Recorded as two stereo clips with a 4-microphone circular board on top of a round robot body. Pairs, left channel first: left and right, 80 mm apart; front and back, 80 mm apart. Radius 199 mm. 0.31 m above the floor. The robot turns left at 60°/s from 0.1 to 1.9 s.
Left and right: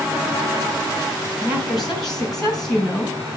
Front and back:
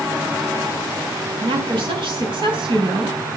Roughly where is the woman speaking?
Behind.